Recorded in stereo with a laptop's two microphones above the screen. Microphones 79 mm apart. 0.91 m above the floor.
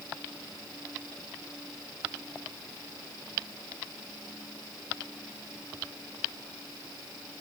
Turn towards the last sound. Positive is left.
No sound to turn to.